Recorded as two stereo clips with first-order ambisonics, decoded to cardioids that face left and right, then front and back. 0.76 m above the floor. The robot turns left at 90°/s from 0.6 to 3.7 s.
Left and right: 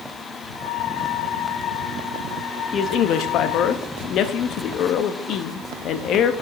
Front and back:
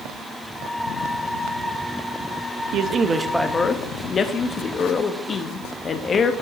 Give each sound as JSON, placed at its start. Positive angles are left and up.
{"t": 2.7, "sound": "a man speaking", "azimuth_deg": 145, "distance_m": 0.6}